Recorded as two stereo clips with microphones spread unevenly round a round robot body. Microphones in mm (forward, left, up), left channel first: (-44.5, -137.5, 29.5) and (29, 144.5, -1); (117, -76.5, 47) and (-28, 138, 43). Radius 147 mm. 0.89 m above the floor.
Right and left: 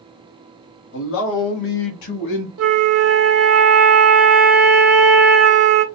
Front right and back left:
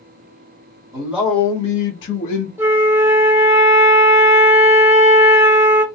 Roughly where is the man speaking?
Behind.